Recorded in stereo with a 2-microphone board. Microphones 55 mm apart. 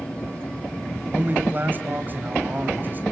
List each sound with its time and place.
1.1 s a man speaking: 35° right (ahead or behind), 3 m